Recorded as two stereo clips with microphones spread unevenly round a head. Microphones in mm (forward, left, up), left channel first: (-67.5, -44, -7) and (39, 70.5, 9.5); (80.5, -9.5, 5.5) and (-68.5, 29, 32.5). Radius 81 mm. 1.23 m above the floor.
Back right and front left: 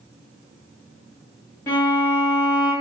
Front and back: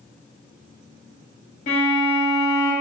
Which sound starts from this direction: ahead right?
A violin, at 1.7 s.